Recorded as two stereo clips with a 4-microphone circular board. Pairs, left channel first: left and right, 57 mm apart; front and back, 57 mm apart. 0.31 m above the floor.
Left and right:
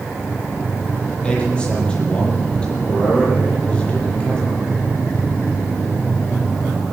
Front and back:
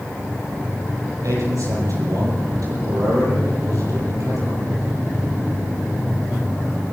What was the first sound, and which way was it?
A man speaking, 165° left.